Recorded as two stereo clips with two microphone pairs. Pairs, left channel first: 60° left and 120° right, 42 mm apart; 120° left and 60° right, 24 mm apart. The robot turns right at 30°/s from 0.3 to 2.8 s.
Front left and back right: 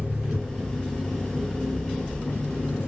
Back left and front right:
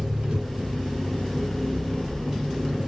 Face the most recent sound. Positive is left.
turn(degrees=30)